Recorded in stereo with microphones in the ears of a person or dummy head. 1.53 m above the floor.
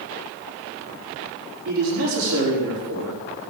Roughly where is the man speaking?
Right.